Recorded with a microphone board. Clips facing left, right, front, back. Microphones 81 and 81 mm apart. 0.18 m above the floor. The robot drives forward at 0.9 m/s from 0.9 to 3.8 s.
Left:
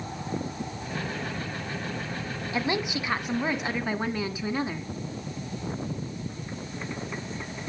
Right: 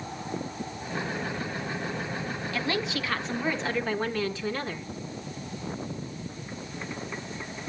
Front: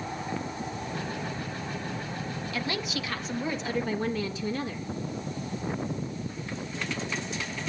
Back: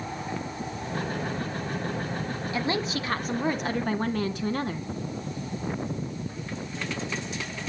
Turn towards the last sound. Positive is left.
turn(degrees=165)